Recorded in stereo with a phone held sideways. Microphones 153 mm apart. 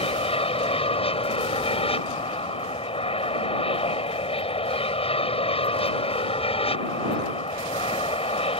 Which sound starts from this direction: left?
An aircraft, at 0.0 s.